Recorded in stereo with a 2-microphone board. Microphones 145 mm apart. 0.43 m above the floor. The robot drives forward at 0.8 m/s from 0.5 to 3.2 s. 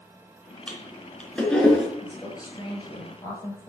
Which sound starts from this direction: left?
A woman speaking, at 2.0 s.